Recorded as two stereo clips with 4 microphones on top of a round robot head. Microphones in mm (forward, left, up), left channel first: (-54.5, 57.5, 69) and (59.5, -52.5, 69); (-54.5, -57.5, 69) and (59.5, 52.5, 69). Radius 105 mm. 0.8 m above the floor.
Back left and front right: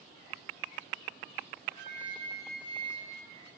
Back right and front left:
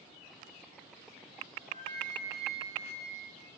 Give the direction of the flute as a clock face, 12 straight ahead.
1 o'clock.